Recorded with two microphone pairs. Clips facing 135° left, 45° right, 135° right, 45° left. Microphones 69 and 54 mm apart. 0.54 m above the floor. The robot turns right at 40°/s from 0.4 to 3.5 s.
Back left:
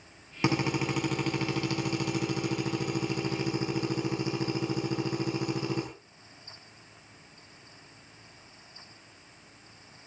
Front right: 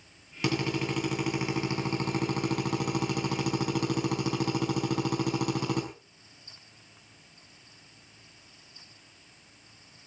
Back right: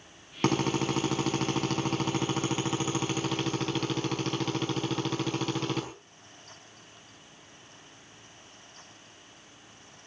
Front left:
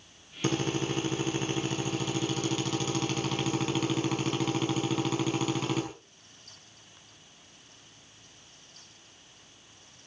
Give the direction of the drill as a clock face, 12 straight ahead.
5 o'clock.